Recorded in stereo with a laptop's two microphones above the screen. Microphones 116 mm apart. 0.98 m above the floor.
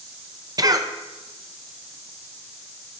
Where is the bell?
I don't hear a bell.